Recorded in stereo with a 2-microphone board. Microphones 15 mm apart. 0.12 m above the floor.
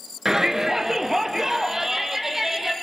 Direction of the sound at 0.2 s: 35° right (ahead or behind).